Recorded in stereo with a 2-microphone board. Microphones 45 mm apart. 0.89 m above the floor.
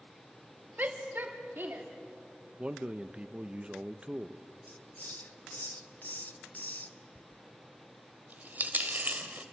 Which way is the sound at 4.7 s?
40° left (ahead or behind).